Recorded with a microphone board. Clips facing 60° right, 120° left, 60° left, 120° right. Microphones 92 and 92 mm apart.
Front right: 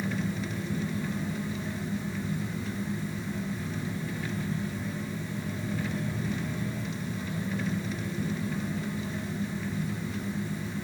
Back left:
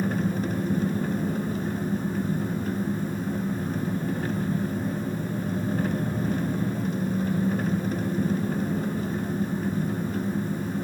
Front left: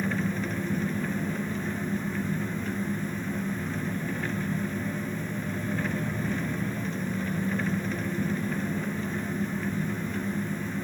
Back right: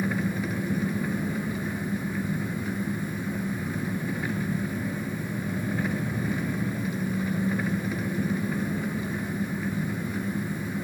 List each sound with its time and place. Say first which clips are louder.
0.0 s an engine running: back left 6 dB, back right 1 dB; 160° left, 1.8 m